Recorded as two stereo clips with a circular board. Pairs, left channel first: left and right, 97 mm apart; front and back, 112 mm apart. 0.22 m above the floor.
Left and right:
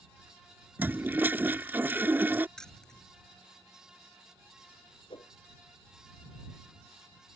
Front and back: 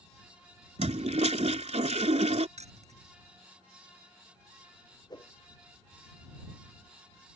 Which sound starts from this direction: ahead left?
A whoosh, at 5.1 s.